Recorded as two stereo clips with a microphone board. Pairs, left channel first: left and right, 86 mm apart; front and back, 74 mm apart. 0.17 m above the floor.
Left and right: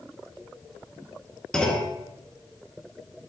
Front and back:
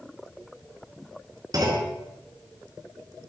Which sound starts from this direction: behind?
A clunk, at 1.5 s.